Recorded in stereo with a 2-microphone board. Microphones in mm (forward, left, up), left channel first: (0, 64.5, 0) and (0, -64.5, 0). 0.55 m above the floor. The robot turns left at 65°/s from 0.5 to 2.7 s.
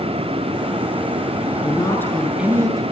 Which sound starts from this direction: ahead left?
A woman speaking, at 1.6 s.